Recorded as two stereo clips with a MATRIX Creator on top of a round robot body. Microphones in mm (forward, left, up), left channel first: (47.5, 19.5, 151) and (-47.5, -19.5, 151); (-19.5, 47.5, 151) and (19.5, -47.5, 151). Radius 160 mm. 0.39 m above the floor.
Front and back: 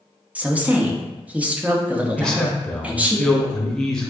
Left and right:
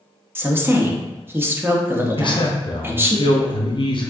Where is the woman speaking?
100° right, 0.8 m.